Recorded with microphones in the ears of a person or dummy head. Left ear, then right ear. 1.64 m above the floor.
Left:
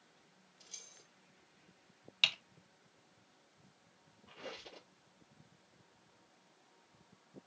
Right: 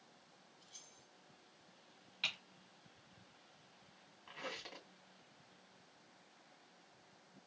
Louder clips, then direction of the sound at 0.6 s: Left 7 dB; 60° left (ahead or behind).